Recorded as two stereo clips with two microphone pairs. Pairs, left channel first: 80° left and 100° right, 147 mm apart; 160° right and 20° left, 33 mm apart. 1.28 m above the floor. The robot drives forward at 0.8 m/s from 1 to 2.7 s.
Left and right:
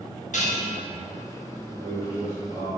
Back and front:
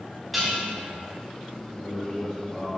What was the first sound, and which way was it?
Dishes clattering, 110° left.